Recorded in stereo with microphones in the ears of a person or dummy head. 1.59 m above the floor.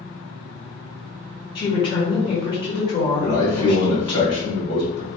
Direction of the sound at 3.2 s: 70° left (ahead or behind).